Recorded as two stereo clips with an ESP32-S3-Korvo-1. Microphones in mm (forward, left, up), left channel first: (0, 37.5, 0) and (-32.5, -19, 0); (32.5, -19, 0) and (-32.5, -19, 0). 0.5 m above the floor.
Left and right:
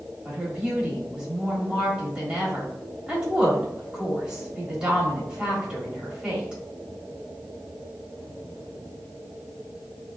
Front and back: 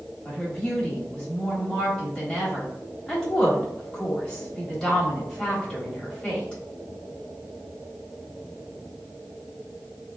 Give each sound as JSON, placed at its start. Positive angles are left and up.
{"t": 0.2, "sound": "a woman speaking", "azimuth_deg": -65, "distance_m": 1.3}